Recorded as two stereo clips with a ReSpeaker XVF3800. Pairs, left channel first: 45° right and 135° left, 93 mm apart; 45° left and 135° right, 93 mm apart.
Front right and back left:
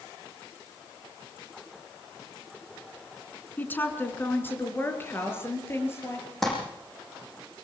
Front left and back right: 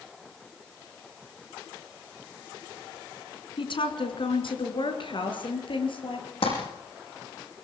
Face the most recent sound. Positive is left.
turn(degrees=45)